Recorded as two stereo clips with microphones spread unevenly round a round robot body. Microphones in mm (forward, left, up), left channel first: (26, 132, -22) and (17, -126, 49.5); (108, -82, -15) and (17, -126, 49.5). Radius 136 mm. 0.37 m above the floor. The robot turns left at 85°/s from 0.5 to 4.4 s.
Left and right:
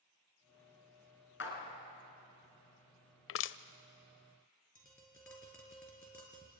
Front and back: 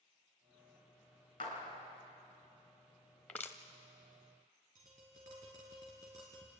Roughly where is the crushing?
Left.